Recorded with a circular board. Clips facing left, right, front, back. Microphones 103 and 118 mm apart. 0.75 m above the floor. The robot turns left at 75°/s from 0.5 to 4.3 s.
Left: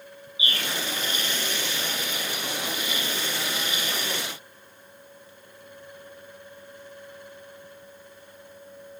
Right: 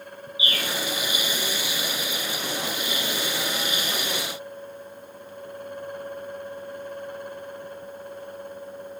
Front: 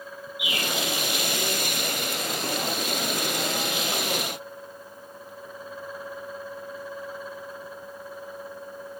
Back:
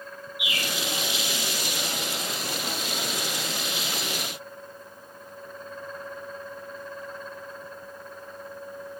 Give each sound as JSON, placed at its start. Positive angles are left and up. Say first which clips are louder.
{"t": 0.4, "sound": "a bird", "louder": "right 2 dB, front 2 dB", "azimuth_deg": 150, "distance_m": 1.2}